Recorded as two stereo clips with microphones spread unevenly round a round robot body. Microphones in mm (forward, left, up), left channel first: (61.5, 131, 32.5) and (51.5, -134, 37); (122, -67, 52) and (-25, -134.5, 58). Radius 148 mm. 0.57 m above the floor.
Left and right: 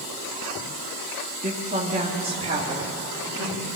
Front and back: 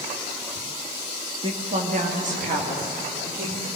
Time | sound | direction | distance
1.4 | a woman speaking | 125° right | 1.2 m